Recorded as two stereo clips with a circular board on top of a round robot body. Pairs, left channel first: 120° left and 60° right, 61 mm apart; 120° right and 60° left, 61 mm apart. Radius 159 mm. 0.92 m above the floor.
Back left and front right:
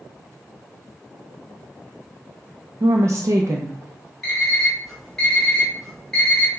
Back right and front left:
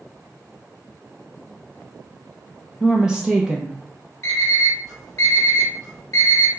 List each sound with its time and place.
2.8 s a woman speaking: 20° right, 0.6 m
4.2 s an alarm clock: 155° right, 2.5 m